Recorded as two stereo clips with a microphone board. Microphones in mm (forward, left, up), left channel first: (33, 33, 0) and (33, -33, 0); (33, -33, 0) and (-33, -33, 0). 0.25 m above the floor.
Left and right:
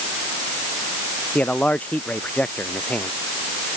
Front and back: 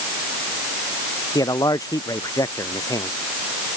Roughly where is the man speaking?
Ahead.